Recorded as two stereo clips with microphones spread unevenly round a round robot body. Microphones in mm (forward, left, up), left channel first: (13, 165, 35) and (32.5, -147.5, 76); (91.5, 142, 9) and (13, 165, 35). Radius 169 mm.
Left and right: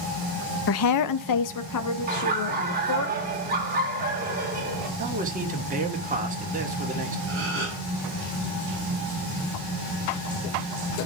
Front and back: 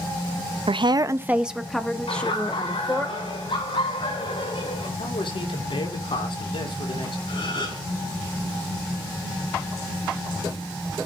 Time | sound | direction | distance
0.7 | a woman speaking | 140° left | 0.8 m
2.1 | laughter | 20° right | 3.5 m
5.0 | a man speaking | 20° right | 2.5 m
7.3 | a gasp | 35° right | 8.5 m